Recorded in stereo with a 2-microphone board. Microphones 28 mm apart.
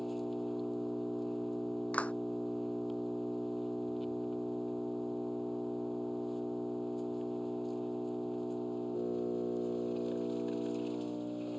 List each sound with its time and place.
0.0 s an engine running: centre (ahead or behind)
1.9 s a clap: 55° left (ahead or behind)